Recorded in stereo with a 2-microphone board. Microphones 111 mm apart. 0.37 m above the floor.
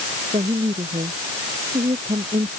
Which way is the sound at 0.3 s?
65° right (ahead or behind).